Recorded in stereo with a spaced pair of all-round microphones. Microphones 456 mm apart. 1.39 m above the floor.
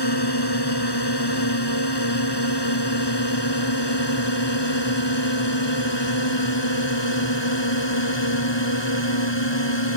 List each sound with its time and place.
0.0 s a drone: 60° left (ahead or behind); by 10.0 s 70° left (ahead or behind)